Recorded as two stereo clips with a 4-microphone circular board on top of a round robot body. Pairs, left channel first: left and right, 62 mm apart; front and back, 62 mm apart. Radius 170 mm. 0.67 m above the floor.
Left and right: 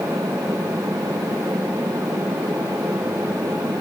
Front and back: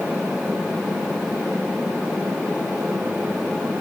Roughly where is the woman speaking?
No woman speaking in this recording.